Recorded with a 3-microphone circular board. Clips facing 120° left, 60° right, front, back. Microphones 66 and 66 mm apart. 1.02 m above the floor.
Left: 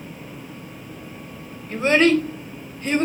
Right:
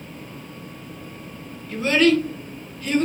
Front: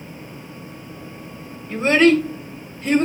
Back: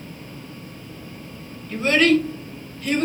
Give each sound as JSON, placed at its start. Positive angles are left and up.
{"t": 1.7, "sound": "a child speaking", "azimuth_deg": 60, "distance_m": 0.7}